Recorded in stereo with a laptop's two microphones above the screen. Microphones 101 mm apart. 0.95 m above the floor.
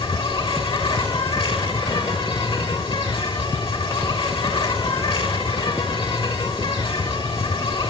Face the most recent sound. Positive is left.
turn(degrees=70)  # may be behind; listen again after turning